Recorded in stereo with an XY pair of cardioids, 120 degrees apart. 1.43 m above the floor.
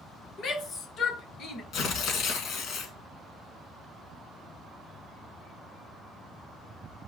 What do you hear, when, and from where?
0.4 s a shout: 60° left, 2 m
1.7 s tearing paper: 65° left, 2 m